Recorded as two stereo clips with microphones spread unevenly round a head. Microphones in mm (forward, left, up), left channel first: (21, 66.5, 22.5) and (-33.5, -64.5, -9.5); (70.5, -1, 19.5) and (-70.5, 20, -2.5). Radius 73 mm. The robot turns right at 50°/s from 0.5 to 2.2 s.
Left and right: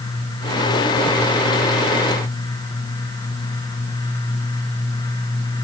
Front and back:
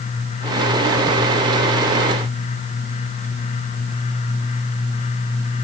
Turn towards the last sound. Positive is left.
No sound to turn to.